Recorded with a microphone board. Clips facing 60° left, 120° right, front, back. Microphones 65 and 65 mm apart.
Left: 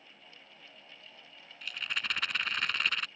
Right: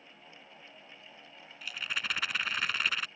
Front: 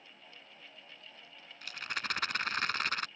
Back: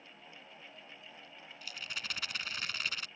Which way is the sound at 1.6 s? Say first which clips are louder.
Even, front 6 dB; 35° right.